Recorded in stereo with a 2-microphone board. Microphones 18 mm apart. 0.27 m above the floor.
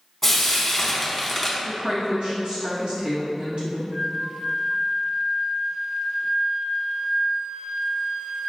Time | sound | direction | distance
0.2 | frying | 5° left (ahead or behind) | 1.0 m
1.6 | a woman speaking | 50° right (ahead or behind) | 1.9 m
3.9 | a flute | 50° right (ahead or behind) | 0.9 m